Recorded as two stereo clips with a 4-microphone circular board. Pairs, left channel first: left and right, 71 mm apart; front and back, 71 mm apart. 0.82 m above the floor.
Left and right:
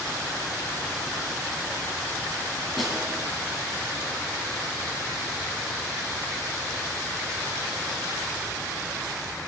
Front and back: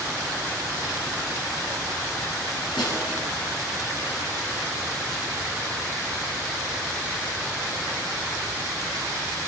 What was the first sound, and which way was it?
A snare drum, 5° right.